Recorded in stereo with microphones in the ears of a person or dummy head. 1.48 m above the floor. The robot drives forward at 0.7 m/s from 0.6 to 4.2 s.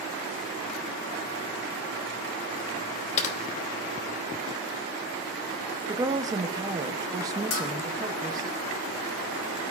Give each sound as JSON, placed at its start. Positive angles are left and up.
{"t": 3.2, "sound": "typing on a keyboard", "side_deg": 35, "distance_m": 1.1}
{"t": 5.9, "sound": "a woman speaking", "side_deg": -20, "distance_m": 0.7}
{"t": 7.5, "sound": "a bell", "side_deg": 80, "distance_m": 2.5}